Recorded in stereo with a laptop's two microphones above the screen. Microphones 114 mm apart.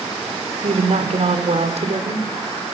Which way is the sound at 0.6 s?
80° right.